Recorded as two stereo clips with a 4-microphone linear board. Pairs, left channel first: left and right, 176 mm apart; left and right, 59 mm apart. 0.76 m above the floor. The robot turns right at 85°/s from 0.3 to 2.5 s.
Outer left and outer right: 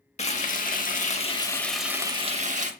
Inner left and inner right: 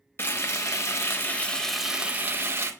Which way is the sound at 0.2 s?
55° left.